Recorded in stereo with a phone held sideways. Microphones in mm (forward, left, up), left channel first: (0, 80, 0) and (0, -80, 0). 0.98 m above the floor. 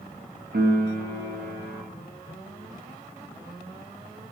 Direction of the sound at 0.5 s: 80° right.